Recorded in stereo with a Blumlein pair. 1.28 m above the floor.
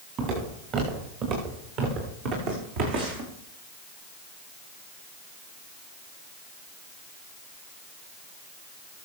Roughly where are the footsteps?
Ahead right.